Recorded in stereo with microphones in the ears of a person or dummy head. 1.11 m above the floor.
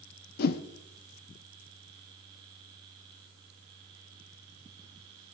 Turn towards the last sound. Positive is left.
turn(degrees=55)  # may be behind; listen again after turning